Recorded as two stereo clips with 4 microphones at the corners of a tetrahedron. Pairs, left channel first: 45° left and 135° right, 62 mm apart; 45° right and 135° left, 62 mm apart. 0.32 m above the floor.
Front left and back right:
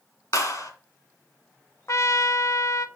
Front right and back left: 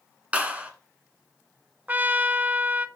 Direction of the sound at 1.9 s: 75° left.